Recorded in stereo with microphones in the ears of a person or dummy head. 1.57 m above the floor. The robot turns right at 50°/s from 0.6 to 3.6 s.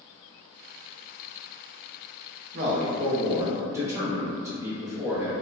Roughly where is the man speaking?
Right.